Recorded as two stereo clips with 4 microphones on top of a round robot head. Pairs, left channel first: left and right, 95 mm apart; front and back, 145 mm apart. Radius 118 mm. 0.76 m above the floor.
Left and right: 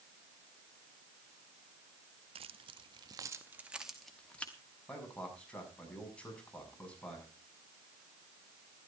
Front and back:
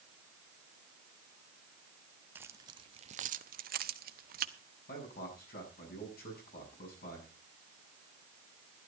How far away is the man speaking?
About 7 m.